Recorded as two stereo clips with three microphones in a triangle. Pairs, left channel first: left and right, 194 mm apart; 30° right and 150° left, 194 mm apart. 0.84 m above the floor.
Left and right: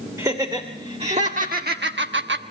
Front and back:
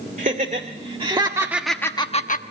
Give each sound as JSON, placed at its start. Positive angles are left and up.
{"t": 0.2, "sound": "laughter", "azimuth_deg": -165, "distance_m": 2.5}